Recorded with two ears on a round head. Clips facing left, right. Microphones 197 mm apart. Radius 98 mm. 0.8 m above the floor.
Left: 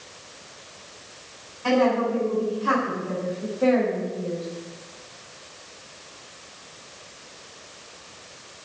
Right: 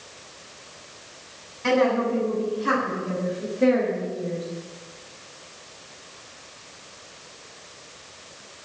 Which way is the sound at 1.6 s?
30° right (ahead or behind).